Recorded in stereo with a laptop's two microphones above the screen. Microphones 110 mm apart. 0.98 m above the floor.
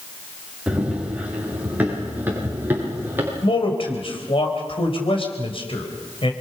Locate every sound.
0.7 s running footsteps: 10° right (ahead or behind), 7 m; by 3.3 s 20° right (ahead or behind), 8 m
3.4 s a man speaking: 55° left (ahead or behind), 4 m